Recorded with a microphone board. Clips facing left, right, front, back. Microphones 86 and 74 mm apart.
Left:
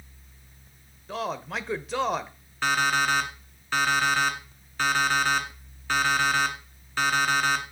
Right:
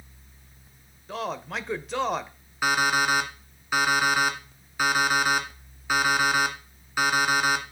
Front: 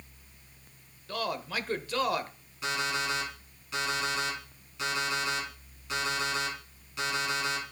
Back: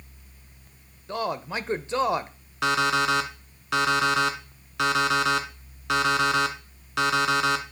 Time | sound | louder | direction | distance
1.1 | a man speaking | even, back 4 dB | straight behind | 0.9 m
2.6 | an alarm clock | right 1 dB, back 9 dB | 170° right | 1.6 m